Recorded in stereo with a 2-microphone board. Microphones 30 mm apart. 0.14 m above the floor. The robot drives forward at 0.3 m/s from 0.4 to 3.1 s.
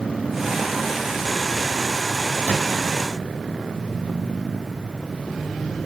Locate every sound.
2.5 s a drawer: 60° left (ahead or behind), 3.5 m